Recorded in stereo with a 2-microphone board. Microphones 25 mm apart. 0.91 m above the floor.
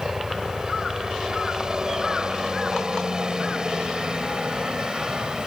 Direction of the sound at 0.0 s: 30° right (ahead or behind).